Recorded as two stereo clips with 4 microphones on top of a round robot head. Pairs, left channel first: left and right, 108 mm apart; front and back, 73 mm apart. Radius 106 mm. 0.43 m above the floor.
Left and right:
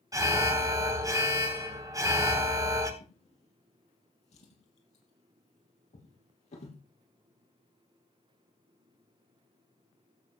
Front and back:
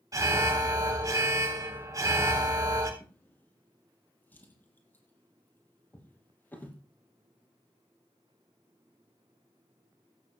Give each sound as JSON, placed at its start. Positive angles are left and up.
{"t": 0.1, "sound": "an alarm", "azimuth_deg": -145, "distance_m": 3.5}
{"t": 3.0, "sound": "a drawer", "azimuth_deg": 60, "distance_m": 4.5}